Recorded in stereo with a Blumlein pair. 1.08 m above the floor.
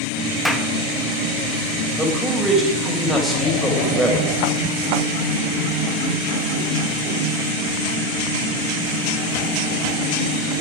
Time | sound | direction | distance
0.5 | a clap | straight ahead | 1.3 m
2.0 | a man speaking | straight ahead | 4.5 m